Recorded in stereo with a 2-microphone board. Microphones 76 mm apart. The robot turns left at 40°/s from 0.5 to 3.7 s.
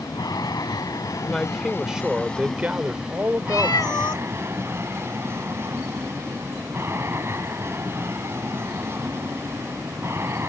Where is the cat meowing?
65° left (ahead or behind).